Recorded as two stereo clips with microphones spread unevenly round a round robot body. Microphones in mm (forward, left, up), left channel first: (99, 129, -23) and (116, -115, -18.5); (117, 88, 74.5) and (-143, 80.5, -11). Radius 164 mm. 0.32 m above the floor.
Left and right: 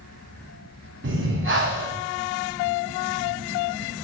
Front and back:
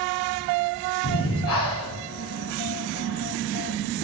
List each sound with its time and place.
1.0 s breathing: 45° right, 7 m